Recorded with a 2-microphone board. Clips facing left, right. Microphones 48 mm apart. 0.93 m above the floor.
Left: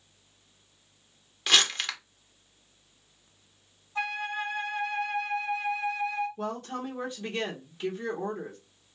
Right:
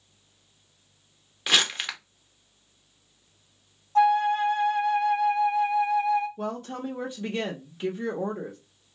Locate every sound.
1.5 s crumpling: 10° right (ahead or behind), 0.6 m
4.0 s a flute: 65° right (ahead or behind), 1.9 m
6.4 s a woman speaking: 15° right (ahead or behind), 0.7 m